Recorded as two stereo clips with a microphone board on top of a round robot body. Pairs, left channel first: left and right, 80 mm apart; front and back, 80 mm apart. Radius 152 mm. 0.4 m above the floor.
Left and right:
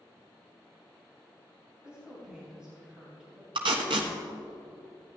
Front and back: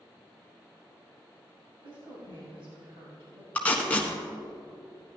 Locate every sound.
1.8 s a woman speaking: 170° right, 3 m
3.5 s tape being pulled: 75° right, 1.1 m